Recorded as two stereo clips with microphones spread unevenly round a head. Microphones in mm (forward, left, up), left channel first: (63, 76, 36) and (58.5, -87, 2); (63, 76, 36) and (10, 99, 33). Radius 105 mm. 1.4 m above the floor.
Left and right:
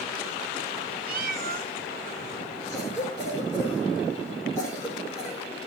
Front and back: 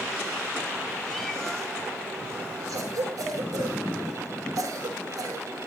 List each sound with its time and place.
1.1 s a cat meowing: 105° right, 0.8 m
2.7 s a cough: 160° left, 4.5 m